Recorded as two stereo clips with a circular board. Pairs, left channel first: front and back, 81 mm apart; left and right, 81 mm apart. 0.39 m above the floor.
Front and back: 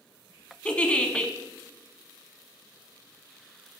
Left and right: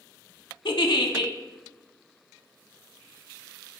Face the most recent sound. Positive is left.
turn(degrees=75)